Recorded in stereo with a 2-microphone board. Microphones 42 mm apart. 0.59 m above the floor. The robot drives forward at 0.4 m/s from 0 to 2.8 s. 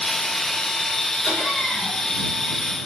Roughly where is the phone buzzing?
I don't hear a phone buzzing.